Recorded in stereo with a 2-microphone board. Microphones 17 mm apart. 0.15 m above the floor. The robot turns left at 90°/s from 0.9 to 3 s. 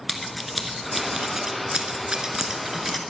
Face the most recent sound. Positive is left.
turn(degrees=5)  # may be behind; listen again after turning